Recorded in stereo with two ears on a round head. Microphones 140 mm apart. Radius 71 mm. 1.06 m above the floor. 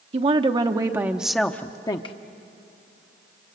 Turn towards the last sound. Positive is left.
turn(degrees=35)  # may be behind; listen again after turning